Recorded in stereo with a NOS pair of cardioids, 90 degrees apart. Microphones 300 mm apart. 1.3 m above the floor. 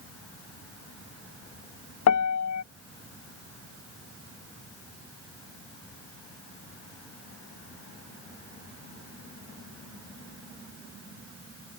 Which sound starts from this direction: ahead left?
A piano, at 2.1 s.